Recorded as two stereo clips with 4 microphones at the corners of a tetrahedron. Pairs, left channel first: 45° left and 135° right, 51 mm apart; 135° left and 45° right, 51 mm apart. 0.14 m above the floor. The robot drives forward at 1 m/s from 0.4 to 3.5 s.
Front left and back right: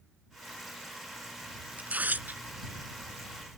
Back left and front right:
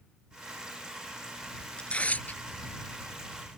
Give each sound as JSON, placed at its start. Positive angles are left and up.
{"t": 1.8, "sound": "tearing paper", "azimuth_deg": -170}